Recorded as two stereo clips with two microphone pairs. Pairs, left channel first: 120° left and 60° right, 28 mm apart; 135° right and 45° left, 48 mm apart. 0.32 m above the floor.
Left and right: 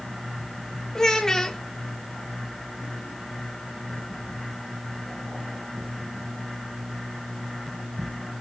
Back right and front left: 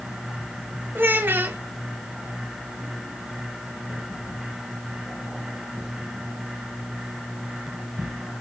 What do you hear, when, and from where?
0.9 s a child speaking: 65° left, 0.6 m